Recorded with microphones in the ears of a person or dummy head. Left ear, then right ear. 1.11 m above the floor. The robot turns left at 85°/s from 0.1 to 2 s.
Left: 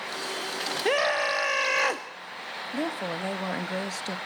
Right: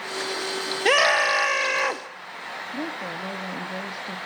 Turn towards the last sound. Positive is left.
turn(degrees=50)  # may be behind; listen again after turning